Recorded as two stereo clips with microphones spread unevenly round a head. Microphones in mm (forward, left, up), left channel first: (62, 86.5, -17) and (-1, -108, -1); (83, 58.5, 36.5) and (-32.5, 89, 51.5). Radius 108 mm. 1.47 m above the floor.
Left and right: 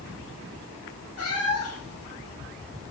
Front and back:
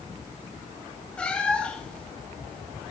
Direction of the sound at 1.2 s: 65° left.